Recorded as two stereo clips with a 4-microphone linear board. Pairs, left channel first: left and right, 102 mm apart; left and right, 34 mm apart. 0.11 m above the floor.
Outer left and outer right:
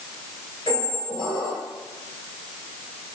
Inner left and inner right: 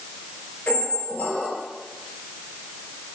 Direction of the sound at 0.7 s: 55° left (ahead or behind).